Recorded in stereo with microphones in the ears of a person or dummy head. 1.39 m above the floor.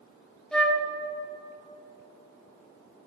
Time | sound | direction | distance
0.5 | a flute | 5° left (ahead or behind) | 0.8 m